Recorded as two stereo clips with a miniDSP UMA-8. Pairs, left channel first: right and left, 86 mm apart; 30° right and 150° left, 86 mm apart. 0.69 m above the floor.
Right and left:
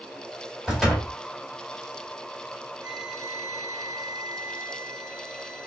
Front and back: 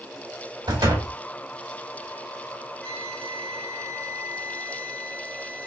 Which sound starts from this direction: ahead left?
A flute, at 2.8 s.